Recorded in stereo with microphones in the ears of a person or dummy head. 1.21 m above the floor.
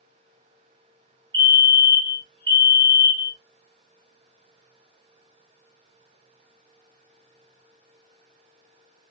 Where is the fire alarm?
20° right (ahead or behind), 1.3 m.